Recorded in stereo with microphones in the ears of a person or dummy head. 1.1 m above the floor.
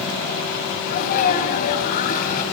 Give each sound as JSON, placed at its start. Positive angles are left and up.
{"t": 0.9, "sound": "a sneeze", "side_deg": 45, "distance_m": 7.5}